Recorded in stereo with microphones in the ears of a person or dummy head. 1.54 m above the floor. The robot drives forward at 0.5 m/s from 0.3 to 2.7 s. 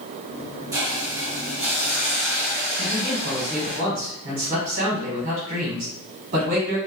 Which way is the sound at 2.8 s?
45° right (ahead or behind).